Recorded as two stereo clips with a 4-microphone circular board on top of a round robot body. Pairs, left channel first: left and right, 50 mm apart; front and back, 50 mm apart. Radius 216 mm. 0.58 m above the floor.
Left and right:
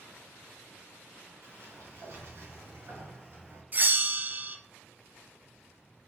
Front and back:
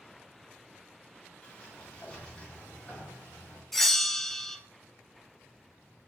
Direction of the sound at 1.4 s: 70° right.